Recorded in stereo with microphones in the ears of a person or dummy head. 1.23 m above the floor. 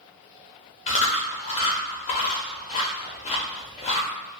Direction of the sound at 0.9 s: 30° left (ahead or behind).